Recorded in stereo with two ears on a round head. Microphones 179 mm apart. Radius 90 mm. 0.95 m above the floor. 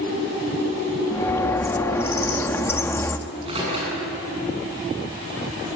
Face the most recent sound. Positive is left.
turn(degrees=-30)  # may be behind; listen again after turning